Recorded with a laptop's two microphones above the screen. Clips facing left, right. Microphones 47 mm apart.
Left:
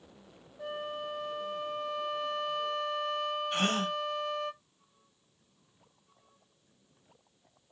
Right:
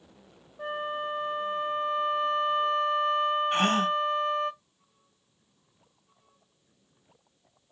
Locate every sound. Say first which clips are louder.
0.6 s a flute: right 5 dB; 30° right (ahead or behind), 1.0 m
3.5 s a gasp: right 6 dB; 35° right (ahead or behind), 1.8 m